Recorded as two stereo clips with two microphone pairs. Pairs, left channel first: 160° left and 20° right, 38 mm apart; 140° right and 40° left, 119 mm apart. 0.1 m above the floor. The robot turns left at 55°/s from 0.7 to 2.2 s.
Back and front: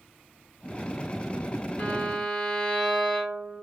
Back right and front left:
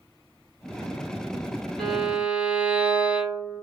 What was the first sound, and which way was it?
A violin, 135° left.